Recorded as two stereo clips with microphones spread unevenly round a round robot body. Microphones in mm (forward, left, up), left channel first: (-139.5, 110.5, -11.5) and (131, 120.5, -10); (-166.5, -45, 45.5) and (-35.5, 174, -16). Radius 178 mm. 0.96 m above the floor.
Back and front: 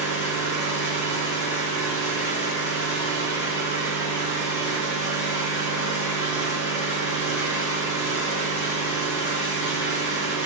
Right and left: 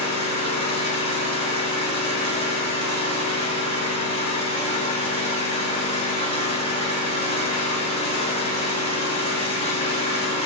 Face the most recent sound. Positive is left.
turn(degrees=175)